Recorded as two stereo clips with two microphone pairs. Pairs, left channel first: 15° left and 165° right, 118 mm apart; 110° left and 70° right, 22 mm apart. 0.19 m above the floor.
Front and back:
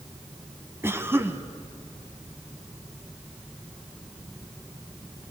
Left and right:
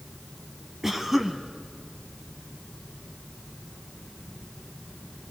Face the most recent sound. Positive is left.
turn(degrees=-125)